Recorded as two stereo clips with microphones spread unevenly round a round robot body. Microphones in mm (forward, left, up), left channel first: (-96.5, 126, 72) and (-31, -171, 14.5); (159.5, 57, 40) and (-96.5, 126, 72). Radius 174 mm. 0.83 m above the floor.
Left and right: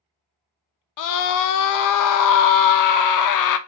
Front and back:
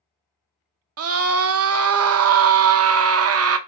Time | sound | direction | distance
1.0 | a scream | 130° left | 0.6 m